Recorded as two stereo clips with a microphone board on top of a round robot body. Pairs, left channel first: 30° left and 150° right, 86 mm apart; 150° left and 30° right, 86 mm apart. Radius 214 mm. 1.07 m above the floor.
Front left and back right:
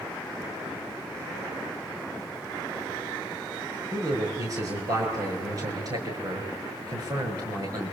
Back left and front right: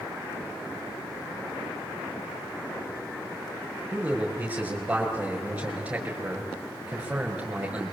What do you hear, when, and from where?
3.9 s a man speaking: 105° right, 6 m